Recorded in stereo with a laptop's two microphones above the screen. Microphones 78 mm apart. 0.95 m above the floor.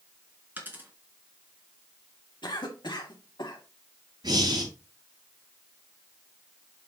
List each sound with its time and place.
0.6 s a dropped coin: 25° right (ahead or behind), 3.5 m
2.4 s a cough: 75° left (ahead or behind), 1.9 m
4.2 s breathing: 60° right (ahead or behind), 5.5 m